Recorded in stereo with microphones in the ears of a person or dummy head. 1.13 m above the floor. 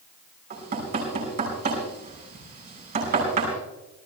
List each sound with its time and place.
0.5 s knocking: 50° right (ahead or behind), 6 m